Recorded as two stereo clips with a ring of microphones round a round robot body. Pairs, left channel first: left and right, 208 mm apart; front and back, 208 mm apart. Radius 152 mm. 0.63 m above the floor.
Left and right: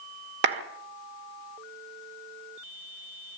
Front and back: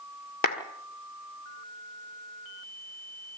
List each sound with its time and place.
0.4 s a clap: 55° right, 1.8 m